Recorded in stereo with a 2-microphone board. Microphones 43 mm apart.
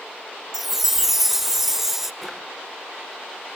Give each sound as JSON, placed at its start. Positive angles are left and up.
{"t": 0.5, "sound": "a chime", "side_deg": -5, "distance_m": 0.7}
{"t": 2.2, "sound": "a drawer", "side_deg": 0, "distance_m": 6.5}